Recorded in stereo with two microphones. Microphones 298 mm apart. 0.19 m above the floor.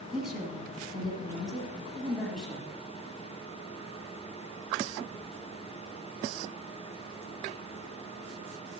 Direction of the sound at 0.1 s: 5° right (ahead or behind).